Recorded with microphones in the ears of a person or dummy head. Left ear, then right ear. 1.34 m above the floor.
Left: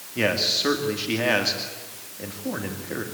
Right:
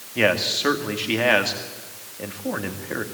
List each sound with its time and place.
0.1 s a man speaking: 20° right (ahead or behind), 2.5 m